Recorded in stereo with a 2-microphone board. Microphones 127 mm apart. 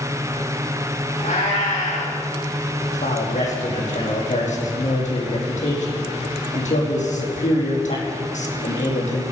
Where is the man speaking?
70° left (ahead or behind), 4.5 m.